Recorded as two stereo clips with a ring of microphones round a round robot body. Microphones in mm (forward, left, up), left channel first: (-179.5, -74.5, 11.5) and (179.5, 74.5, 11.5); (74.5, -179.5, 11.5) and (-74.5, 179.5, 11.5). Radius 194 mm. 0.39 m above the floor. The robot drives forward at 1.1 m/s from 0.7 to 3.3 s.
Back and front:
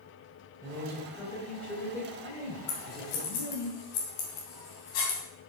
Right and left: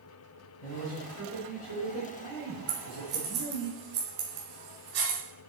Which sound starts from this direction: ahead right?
A man speaking, at 0.6 s.